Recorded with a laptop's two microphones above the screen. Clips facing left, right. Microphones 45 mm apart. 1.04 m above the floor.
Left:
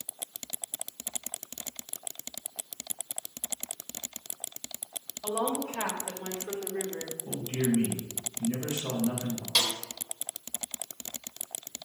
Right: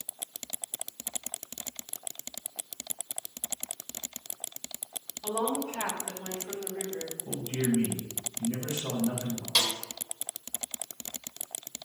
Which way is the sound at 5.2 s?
45° left (ahead or behind).